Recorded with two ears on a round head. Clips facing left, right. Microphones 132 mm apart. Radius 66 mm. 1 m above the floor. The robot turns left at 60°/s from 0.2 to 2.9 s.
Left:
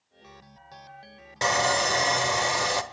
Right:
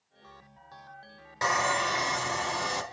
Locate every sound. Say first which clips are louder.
1.4 s sawing: left 3 dB; 150° left, 1.4 m; by 2.8 s 65° left, 1.4 m